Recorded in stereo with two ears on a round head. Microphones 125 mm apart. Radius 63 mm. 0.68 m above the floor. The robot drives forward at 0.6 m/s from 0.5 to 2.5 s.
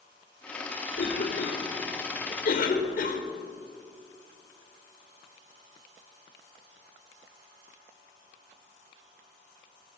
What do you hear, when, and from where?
0.9 s a cough: 70° left (ahead or behind), 2 m; by 3.2 s 65° left (ahead or behind), 2 m